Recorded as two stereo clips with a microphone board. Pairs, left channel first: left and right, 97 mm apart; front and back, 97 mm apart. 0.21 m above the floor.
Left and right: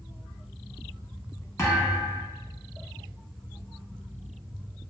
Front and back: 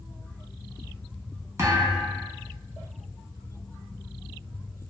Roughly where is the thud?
Behind left.